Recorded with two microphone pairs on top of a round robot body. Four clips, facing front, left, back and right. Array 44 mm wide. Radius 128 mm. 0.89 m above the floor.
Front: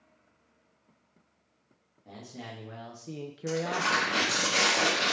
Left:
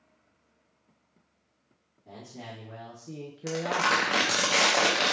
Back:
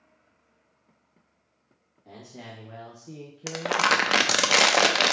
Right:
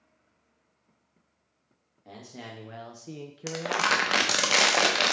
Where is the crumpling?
160° right, 0.7 m.